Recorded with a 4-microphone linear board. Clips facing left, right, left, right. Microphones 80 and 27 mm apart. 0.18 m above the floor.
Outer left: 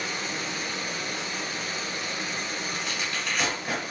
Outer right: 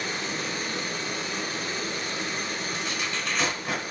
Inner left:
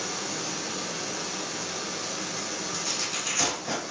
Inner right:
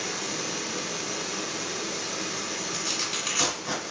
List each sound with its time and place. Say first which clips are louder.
0.0 s running water: outer right 1 dB, inner right 1 dB; 35° right (ahead or behind), 1.5 m
2.7 s tearing paper: outer right 1 dB, inner right 1 dB; 25° right (ahead or behind), 2 m